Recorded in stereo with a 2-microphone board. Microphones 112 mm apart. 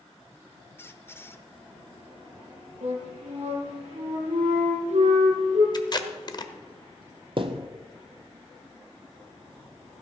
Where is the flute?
90° right, 4.5 m.